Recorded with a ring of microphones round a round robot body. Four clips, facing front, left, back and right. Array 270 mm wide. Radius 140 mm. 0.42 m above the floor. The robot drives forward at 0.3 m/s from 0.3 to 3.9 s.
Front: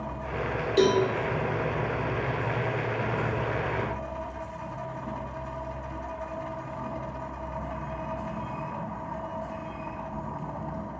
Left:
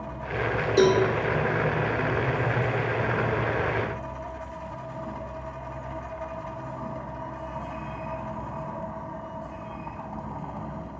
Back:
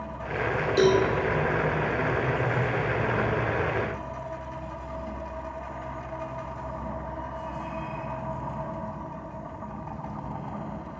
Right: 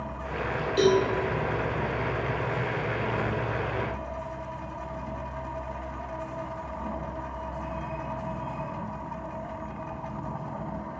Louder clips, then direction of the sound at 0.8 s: Left 2 dB, back 1 dB; 85° left.